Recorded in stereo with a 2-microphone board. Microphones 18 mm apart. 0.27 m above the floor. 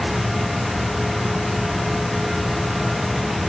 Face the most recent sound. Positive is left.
No sound to turn to.